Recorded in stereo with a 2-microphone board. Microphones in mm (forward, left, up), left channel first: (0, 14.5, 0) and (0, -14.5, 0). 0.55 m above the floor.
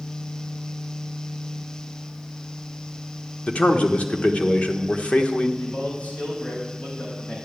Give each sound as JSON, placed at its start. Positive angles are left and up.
{"t": 3.5, "sound": "a man speaking", "side_deg": 50, "distance_m": 1.2}
{"t": 5.6, "sound": "a man speaking", "side_deg": 70, "distance_m": 3.5}